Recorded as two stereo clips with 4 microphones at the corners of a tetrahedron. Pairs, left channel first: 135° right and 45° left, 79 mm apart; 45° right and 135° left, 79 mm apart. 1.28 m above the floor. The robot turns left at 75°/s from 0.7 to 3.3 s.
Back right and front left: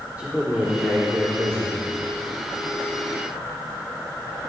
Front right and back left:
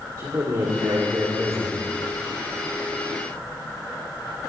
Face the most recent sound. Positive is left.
turn(degrees=-80)